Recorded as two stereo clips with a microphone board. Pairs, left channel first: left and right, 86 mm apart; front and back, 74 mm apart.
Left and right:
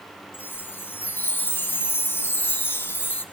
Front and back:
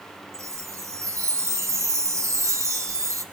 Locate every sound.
0.3 s a chime: 150° left, 0.9 m